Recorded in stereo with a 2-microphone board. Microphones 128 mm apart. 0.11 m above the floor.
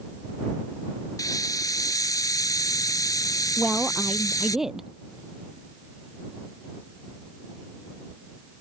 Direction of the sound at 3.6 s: 5° right (ahead or behind).